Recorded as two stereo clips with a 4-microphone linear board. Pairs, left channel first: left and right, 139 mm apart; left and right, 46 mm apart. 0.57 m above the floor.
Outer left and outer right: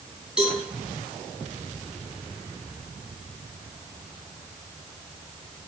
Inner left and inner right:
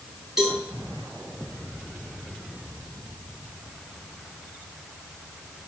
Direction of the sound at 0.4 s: 5° right (ahead or behind).